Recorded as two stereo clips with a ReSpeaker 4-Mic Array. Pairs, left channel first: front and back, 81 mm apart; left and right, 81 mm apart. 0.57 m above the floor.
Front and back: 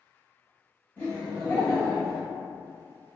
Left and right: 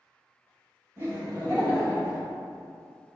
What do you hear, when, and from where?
1.0 s laughter: 60° right, 1.3 m; by 2.3 s 75° right, 1.7 m